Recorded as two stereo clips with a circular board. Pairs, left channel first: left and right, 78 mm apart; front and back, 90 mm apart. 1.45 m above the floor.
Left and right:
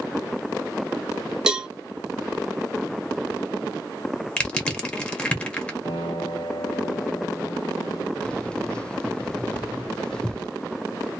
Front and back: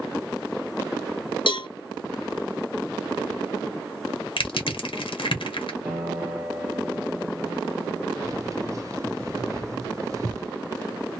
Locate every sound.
1.5 s a cowbell: 10° right, 0.6 m
4.4 s crushing: 15° left, 1.0 m
5.8 s a piano: 110° left, 1.3 m
8.2 s keys jangling: 160° left, 0.6 m